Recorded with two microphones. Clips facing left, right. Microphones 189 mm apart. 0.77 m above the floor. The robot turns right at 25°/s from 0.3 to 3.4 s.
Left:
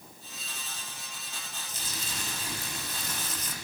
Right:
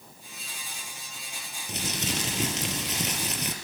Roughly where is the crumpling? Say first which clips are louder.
Right 12 dB; right.